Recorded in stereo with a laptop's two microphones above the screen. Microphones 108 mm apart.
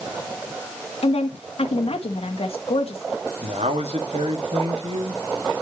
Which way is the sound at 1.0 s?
70° left (ahead or behind).